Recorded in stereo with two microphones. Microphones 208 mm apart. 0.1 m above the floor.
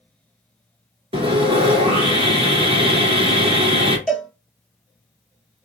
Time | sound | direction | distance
1.1 | sawing | 30° right (ahead or behind) | 1.2 m
4.1 | a cowbell | centre (ahead or behind) | 1.0 m